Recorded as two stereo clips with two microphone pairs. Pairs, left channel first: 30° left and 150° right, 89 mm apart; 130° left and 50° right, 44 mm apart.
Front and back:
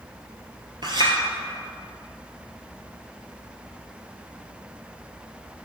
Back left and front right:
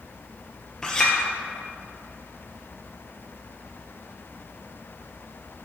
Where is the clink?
155° right, 1.7 m.